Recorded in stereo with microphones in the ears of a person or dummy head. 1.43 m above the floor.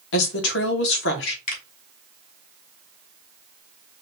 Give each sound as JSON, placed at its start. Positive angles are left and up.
{"t": 0.1, "sound": "a woman speaking", "side_deg": 75, "distance_m": 1.5}
{"t": 1.5, "sound": "a finger snap", "side_deg": 45, "distance_m": 2.5}